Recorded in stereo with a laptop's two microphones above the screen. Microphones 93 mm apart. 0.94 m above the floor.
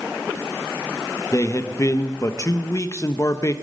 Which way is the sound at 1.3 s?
35° left (ahead or behind).